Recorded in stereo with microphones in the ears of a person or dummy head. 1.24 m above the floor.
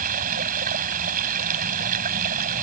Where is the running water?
50° right (ahead or behind).